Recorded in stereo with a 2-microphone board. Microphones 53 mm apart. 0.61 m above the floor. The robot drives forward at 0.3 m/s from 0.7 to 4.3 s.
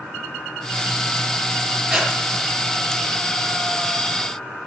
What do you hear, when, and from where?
1.9 s breathing: 10° right (ahead or behind), 5.5 m